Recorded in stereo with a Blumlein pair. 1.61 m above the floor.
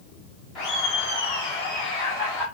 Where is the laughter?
45° left, 4 m; by 2.4 s 40° left, 5 m.